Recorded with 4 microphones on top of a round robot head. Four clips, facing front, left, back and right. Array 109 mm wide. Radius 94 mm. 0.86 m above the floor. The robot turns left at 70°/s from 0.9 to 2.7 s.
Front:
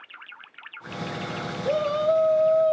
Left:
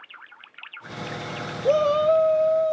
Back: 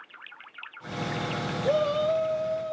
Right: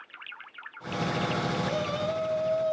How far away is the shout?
About 0.8 m.